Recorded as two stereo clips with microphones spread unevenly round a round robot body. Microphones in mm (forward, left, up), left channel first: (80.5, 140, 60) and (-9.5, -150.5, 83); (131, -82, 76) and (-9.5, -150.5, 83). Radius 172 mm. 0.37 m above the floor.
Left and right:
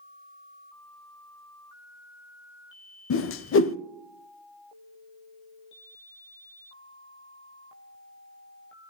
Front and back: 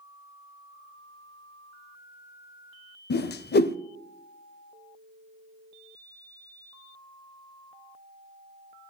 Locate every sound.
3.1 s a whoosh: 25° left, 0.6 m